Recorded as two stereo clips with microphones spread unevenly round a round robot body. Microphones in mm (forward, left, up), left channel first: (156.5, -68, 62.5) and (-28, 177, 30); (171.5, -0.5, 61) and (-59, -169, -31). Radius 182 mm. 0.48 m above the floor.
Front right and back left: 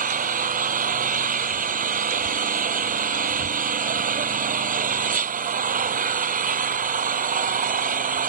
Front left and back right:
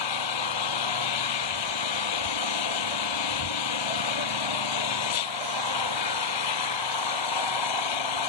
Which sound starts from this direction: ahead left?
An engine running, at 0.0 s.